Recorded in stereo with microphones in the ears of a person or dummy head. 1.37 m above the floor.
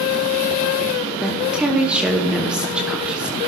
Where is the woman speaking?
10° right (ahead or behind), 1.0 m.